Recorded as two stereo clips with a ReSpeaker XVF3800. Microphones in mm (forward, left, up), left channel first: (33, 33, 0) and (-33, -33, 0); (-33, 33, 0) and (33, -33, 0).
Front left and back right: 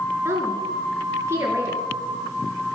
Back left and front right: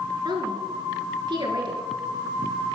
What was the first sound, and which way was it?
A woman speaking, 75° right.